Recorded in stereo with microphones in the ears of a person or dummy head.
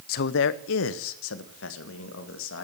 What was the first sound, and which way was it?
A man speaking, 55° left (ahead or behind).